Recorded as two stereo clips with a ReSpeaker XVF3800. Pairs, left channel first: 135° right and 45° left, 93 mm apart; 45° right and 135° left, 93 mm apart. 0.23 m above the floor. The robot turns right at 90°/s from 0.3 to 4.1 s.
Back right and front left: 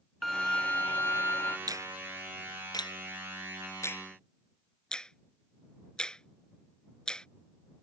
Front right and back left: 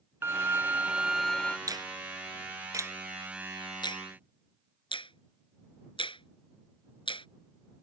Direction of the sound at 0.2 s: 140° left.